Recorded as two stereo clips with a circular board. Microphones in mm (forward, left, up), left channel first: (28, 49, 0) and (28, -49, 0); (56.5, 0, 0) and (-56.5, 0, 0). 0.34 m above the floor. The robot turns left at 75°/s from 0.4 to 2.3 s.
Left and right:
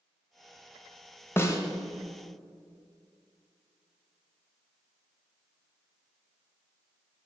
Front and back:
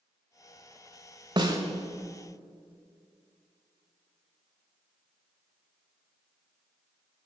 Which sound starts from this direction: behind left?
A snare drum, at 1.4 s.